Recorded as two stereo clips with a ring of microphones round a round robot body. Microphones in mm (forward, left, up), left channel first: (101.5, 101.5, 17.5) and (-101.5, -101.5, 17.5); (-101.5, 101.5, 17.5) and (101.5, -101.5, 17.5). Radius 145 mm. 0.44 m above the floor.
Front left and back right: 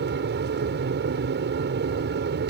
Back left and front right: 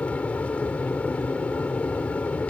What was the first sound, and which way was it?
An aircraft, 145° right.